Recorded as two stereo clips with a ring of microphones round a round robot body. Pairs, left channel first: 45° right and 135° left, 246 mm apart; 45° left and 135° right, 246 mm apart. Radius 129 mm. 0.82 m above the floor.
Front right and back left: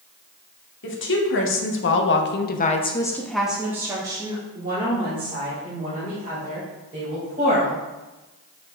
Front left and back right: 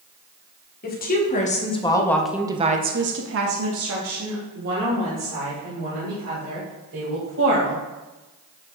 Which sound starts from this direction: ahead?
A woman speaking, at 0.8 s.